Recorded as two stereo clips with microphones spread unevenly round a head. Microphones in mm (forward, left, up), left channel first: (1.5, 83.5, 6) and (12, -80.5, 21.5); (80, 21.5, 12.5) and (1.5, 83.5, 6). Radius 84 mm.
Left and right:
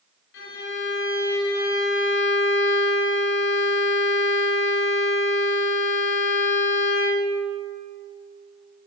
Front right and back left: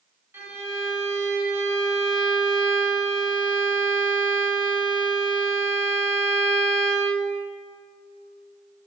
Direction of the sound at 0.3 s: 75° left.